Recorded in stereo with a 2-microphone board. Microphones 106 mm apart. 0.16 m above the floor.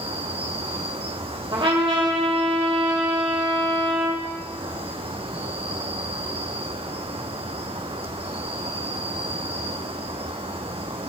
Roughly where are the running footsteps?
I don't hear running footsteps.